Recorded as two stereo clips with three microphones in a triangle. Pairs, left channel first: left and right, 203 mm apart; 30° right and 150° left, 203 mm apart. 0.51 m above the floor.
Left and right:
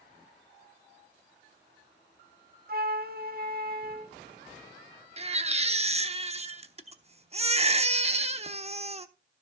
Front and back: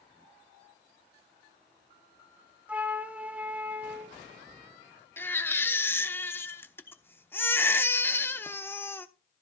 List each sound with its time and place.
2.7 s a flute: 125° right, 0.7 m
5.2 s a baby crying: 100° right, 0.8 m